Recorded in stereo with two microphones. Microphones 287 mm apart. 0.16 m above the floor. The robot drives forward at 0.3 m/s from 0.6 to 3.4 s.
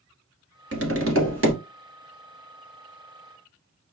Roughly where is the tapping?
Right.